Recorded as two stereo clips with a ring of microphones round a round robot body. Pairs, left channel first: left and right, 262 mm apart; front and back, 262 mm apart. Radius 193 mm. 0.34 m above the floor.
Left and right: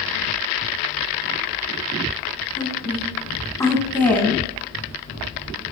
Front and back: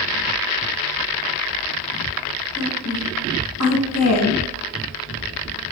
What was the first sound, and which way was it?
A woman speaking, 15° left.